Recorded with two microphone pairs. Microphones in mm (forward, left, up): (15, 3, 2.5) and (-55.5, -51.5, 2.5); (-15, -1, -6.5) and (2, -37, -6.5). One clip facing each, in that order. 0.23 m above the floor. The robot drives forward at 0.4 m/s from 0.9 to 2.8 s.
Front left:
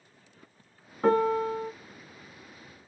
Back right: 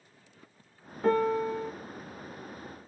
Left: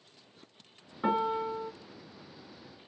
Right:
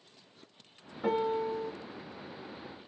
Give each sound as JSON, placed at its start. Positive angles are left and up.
{"t": 1.0, "sound": "a piano", "azimuth_deg": 55, "distance_m": 1.3}